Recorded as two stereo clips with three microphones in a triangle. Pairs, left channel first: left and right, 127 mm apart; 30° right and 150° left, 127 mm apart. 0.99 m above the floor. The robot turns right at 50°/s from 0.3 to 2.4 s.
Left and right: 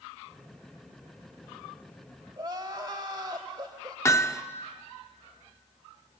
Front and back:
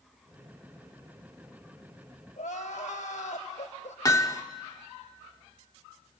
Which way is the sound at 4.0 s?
25° left.